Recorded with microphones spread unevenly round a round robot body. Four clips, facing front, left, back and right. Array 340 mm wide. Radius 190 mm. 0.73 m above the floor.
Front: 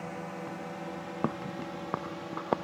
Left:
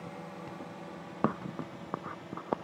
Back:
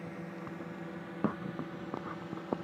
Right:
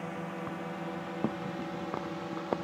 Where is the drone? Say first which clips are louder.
Right 5 dB, front 4 dB; 65° right; by 2.6 s 80° right.